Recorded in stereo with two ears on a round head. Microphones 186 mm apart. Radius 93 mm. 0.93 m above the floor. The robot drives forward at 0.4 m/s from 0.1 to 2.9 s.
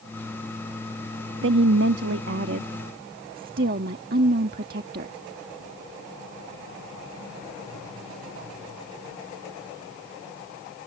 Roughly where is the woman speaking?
Right.